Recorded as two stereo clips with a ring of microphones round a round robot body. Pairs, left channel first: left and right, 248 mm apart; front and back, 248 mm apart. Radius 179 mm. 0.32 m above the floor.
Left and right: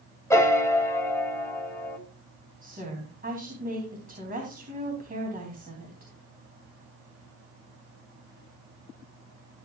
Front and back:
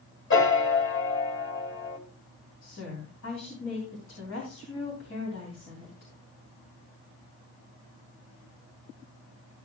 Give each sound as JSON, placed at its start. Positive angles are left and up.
{"t": 0.3, "sound": "a piano", "azimuth_deg": 15, "distance_m": 2.0}
{"t": 2.6, "sound": "a woman speaking", "azimuth_deg": -40, "distance_m": 3.0}